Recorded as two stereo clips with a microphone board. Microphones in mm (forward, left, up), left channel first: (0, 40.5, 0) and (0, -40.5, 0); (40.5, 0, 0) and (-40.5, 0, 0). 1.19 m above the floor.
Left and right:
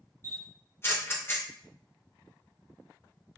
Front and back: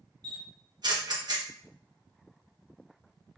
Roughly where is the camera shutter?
Behind left.